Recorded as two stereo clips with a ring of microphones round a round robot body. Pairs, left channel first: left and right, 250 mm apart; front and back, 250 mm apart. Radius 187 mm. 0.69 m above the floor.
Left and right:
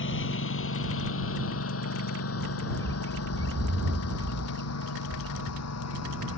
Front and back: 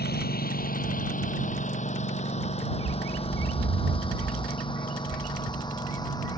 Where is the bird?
160° right.